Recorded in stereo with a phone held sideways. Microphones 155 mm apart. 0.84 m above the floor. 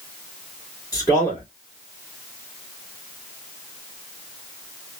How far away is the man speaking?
About 2 m.